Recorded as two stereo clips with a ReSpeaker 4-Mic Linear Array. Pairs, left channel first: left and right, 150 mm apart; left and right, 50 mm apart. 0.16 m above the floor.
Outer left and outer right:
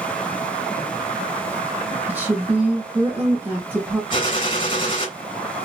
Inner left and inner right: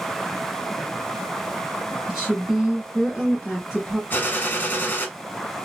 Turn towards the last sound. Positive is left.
turn(degrees=35)  # may be behind; listen again after turning